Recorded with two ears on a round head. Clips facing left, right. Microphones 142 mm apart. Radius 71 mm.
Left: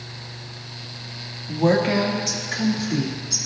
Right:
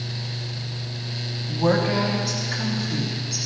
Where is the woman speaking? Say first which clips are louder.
Left 2 dB; 20° left (ahead or behind), 1.9 m; by 3.4 s 40° left (ahead or behind), 2.5 m.